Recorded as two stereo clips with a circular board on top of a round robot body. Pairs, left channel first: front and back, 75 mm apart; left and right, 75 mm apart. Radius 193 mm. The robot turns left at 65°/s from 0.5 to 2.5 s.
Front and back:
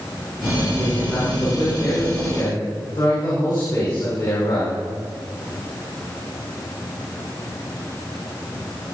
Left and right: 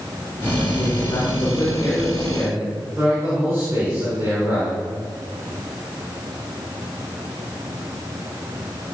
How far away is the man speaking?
About 6.5 m.